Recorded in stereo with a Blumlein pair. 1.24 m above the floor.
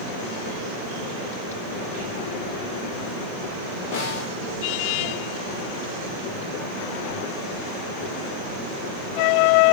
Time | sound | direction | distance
3.9 | a snare drum | 45° left | 2.5 m